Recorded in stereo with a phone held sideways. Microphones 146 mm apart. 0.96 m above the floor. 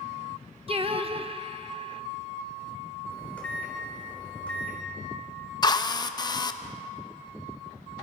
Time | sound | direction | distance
0.7 | singing | 40° right (ahead or behind) | 0.7 m
3.1 | a microwave | 10° left (ahead or behind) | 3.5 m
5.6 | a drill | 30° left (ahead or behind) | 0.7 m